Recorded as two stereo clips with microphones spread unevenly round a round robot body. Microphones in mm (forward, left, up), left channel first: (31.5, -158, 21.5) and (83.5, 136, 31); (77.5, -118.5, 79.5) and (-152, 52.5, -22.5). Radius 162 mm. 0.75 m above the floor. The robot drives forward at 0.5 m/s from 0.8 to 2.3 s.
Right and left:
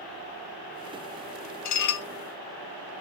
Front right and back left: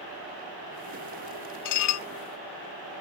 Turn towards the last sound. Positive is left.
turn(degrees=-95)